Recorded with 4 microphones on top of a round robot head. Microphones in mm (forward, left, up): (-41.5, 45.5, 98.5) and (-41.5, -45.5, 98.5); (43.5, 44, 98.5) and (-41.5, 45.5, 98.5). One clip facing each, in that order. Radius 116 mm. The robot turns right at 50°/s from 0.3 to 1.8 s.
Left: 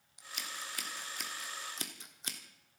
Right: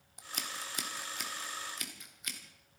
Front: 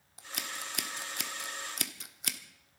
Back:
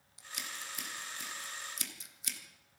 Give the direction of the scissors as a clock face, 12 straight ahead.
2 o'clock.